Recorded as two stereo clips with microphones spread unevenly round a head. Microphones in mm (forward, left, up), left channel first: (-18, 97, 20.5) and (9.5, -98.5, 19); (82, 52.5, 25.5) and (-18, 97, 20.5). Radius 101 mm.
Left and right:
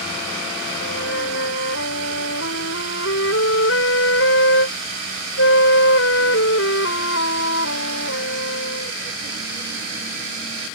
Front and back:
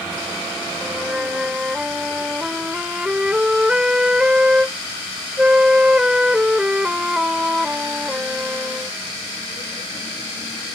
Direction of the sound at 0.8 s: 75° left.